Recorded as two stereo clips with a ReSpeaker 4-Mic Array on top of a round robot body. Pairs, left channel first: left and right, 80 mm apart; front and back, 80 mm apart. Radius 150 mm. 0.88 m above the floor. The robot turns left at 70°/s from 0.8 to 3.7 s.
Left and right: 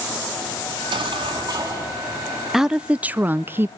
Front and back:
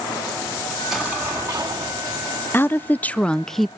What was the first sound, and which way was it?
An explosion, 85° right.